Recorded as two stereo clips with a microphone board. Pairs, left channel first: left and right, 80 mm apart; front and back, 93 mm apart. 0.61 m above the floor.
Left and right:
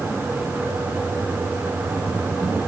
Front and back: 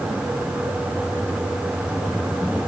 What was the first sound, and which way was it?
Only background noise.